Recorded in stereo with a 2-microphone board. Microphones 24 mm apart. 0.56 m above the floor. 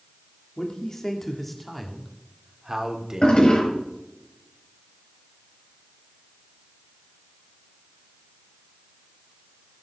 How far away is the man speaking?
About 1.5 m.